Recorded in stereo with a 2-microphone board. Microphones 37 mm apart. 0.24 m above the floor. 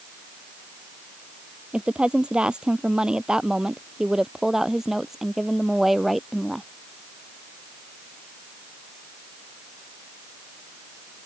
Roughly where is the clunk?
No clunk in this recording.